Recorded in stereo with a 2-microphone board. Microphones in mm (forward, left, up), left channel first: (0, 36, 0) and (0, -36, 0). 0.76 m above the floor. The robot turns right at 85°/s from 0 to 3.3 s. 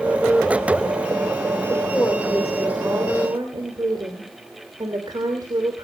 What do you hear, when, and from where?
1.7 s a woman speaking: 120° left, 3 m; by 5.8 s 105° right, 3 m